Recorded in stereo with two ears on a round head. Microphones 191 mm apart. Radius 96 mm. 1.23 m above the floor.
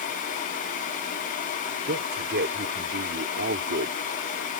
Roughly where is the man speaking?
Right.